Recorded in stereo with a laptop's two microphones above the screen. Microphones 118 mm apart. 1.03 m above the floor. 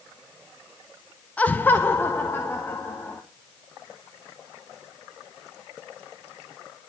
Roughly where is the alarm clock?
No alarm clock in this recording.